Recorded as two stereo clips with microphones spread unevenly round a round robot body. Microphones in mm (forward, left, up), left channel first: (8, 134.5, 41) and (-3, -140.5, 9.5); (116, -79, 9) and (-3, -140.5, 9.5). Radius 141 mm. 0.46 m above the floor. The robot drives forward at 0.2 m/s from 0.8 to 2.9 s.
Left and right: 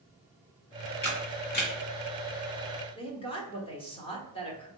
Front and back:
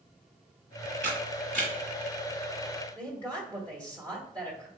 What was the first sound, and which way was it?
A camera shutter, 145° left.